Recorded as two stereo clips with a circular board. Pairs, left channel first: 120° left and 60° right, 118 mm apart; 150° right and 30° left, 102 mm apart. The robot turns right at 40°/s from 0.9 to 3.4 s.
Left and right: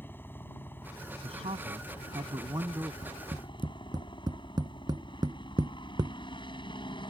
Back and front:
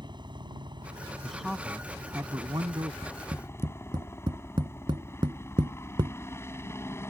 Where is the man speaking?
65° right; by 2.9 s 5° left.